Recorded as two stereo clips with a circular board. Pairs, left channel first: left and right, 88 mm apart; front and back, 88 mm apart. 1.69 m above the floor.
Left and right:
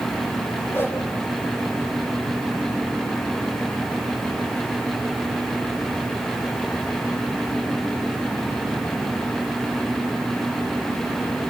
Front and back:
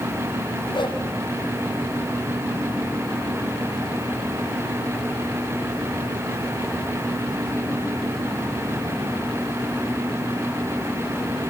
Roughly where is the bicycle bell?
I don't hear a bicycle bell.